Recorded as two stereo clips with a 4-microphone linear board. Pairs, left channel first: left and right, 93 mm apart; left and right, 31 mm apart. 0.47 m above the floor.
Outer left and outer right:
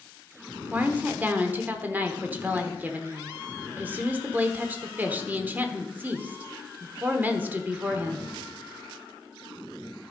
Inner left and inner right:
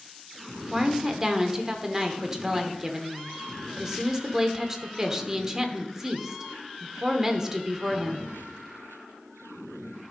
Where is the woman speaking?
20° right (ahead or behind), 1.0 m.